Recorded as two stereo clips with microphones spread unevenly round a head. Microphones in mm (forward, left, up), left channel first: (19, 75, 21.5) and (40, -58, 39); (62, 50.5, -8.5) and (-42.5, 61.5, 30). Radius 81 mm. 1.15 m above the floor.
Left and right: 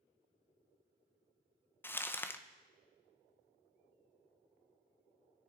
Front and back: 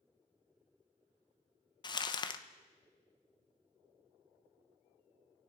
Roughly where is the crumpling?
Ahead left.